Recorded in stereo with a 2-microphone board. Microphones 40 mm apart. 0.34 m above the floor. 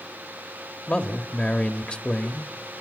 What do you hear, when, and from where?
0.9 s a man speaking: 30° left (ahead or behind), 1.0 m